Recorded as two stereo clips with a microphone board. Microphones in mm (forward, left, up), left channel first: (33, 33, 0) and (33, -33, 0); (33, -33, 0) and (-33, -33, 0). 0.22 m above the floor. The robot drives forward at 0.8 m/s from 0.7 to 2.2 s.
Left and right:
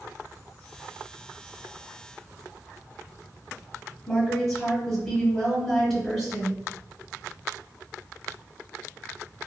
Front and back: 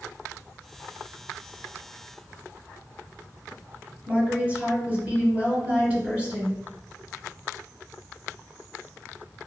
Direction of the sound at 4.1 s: 175° left.